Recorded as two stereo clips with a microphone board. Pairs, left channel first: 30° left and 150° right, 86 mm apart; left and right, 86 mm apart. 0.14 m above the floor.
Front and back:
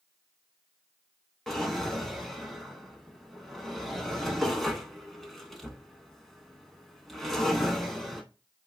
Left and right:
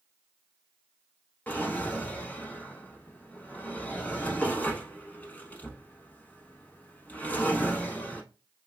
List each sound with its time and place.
1.5 s a drawer: 115° left, 0.7 m